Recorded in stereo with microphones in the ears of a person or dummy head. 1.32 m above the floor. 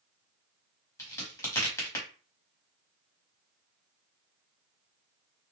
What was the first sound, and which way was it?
A crack, 15° left (ahead or behind).